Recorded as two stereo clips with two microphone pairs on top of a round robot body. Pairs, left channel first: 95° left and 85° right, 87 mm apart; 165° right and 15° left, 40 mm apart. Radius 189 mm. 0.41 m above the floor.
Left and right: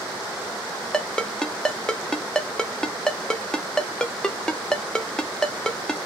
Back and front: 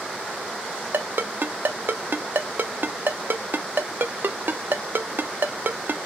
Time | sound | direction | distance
0.9 | a ringtone | 15° left | 0.8 m